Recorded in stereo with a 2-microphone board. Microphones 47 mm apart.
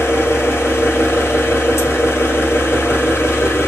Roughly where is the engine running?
Left.